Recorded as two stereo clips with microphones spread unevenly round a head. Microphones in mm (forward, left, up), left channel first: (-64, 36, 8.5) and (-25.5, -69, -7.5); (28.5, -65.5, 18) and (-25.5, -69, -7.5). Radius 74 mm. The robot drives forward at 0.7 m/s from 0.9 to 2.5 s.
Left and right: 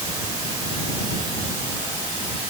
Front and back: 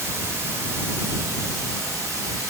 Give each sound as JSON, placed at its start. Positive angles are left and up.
{"t": 0.0, "sound": "running water", "azimuth_deg": -125, "distance_m": 2.5}